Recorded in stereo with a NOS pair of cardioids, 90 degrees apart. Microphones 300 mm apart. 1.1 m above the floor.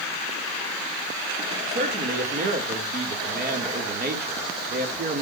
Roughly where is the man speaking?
Ahead right.